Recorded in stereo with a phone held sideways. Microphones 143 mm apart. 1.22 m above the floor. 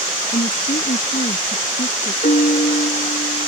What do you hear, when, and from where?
0.3 s a woman speaking: 70° left (ahead or behind); by 2.1 s 65° left (ahead or behind)
2.2 s a piano: 70° left (ahead or behind)